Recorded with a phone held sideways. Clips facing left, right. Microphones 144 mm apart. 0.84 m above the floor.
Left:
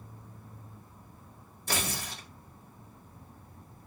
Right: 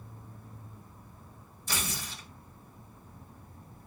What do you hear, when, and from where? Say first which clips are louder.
1.7 s tearing paper: left 3 dB; 80° left, 2.5 m